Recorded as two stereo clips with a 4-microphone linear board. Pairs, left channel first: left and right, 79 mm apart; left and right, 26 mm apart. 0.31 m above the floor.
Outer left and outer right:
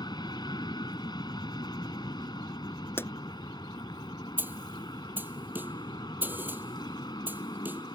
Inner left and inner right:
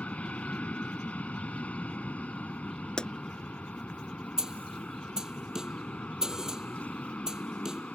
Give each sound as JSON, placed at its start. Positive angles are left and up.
{"t": 0.0, "sound": "an aircraft", "side_deg": 60}
{"t": 3.0, "sound": "a pop", "side_deg": 30}
{"t": 4.4, "sound": "a snare drum", "side_deg": -25}